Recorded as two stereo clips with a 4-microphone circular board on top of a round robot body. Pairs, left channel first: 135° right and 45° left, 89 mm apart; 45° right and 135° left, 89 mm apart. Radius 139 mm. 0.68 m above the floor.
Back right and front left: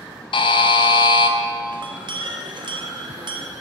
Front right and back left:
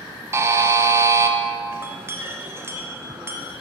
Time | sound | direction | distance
0.3 | a buzzer | 165° right | 0.6 m
1.7 | a clink | 75° left | 1.0 m